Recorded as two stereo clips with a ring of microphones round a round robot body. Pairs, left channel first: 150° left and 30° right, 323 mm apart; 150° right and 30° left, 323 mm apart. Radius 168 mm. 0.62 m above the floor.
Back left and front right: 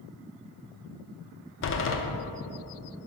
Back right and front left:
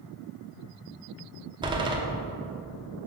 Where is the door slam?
105° left, 0.8 m.